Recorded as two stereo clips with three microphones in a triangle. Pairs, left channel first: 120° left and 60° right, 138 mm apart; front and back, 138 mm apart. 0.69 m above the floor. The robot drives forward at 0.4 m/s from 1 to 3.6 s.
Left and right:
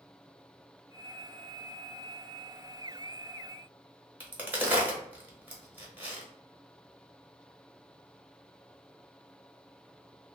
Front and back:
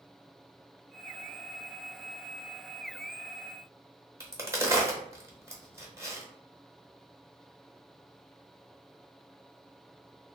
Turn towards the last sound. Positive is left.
turn(degrees=-125)